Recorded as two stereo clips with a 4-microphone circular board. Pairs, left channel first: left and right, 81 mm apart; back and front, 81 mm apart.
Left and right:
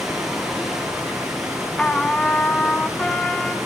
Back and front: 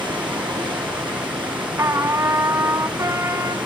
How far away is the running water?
About 2.5 m.